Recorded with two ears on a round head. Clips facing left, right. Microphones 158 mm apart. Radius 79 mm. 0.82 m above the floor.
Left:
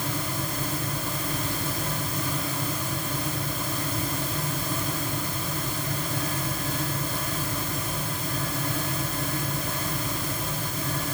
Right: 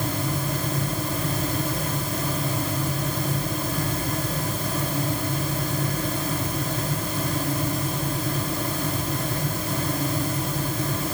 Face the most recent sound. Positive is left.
No sound to turn to.